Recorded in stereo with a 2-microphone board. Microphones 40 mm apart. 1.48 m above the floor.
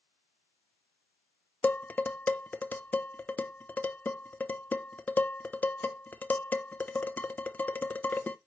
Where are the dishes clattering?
40° left (ahead or behind), 0.6 m.